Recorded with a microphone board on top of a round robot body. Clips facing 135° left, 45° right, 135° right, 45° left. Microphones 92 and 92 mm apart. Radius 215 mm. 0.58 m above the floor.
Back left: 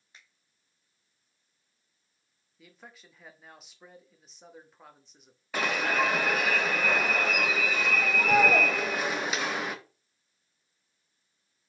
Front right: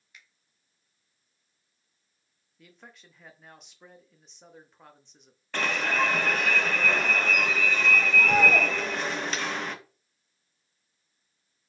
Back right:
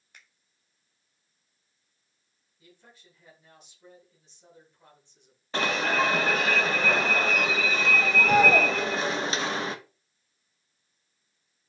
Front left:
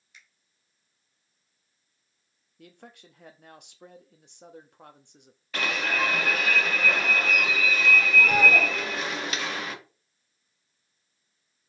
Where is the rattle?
I don't hear a rattle.